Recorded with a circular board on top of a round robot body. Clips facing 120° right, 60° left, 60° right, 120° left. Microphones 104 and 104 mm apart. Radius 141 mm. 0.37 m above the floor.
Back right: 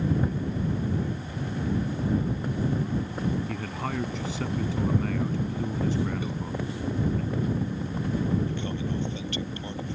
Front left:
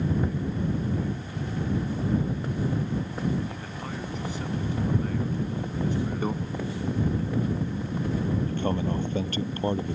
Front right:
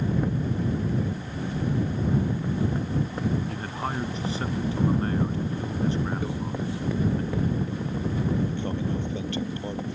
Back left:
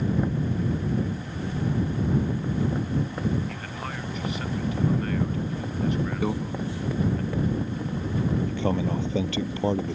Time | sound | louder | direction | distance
3.5 | a man speaking | back right 4 dB, front right 4 dB | 120° right | ?
6.2 | a microwave | front left 6 dB, back left 5 dB | 110° left | ?
8.5 | a man speaking | front left 4 dB, back left 3 dB | 110° left | ?